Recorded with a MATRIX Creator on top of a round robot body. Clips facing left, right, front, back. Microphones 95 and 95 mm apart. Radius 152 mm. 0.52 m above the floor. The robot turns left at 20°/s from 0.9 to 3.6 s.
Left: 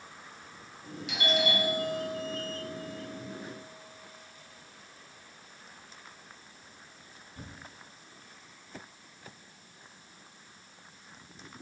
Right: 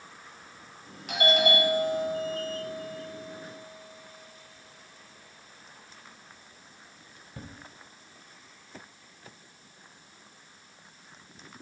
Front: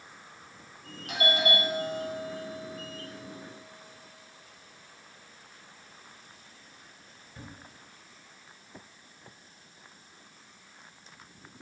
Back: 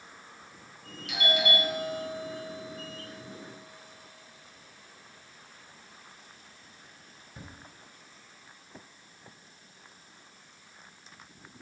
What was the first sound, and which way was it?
A doorbell, 50° right.